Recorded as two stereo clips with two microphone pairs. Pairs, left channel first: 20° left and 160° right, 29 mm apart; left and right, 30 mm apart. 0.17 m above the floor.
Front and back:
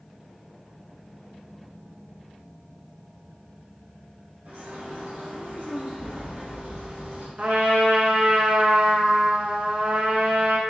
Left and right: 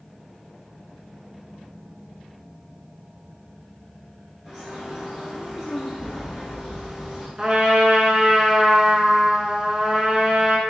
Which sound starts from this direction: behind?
A bird, at 4.5 s.